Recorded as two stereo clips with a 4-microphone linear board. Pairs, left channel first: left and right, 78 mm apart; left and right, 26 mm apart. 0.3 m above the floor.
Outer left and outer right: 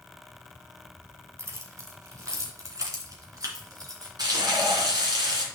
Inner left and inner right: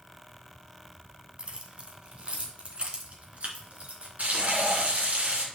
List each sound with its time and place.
1.4 s keys jangling: 40° right (ahead or behind), 1.6 m; by 4.1 s 55° right (ahead or behind), 3 m
4.2 s frying: 60° right (ahead or behind), 2.5 m